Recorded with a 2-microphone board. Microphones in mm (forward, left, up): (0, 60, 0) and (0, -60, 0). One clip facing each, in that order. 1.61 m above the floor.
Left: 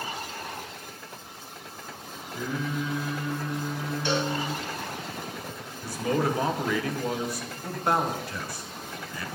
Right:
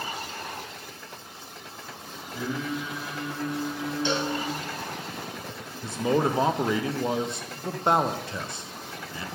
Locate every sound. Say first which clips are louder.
2.3 s singing: even; 20° right (ahead or behind), 3.5 m
4.0 s a cowbell: left 1 dB; 20° right (ahead or behind), 1.5 m
5.8 s a man speaking: right 2 dB; 25° right (ahead or behind), 0.7 m